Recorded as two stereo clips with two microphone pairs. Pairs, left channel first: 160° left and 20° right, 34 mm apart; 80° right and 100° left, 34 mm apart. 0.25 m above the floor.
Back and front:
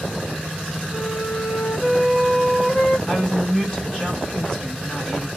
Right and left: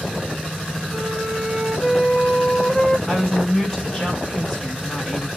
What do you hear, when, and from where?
0.9 s a flute: 145° right, 1.3 m
3.1 s a woman speaking: 155° right, 1.5 m